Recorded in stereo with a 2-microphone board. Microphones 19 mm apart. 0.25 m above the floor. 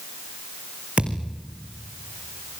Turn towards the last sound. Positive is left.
turn(degrees=-75)  # may be behind; listen again after turning